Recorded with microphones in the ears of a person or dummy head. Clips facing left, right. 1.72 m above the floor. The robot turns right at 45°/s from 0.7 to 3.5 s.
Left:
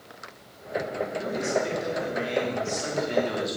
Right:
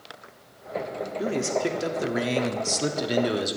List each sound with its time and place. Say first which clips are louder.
1.2 s a man speaking: right 3 dB; 145° right, 0.7 m; by 3.6 s 40° right, 0.7 m